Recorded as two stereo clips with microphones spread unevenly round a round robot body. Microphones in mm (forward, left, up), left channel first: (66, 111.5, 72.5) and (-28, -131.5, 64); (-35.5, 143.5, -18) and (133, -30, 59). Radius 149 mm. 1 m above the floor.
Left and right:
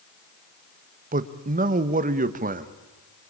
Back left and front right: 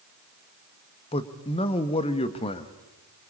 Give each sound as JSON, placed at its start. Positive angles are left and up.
{"t": 1.1, "sound": "a man speaking", "azimuth_deg": -165, "distance_m": 1.1}